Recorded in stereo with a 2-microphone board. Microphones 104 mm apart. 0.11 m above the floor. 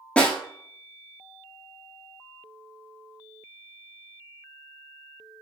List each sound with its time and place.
0.2 s a snare drum: 10° left (ahead or behind), 1.2 m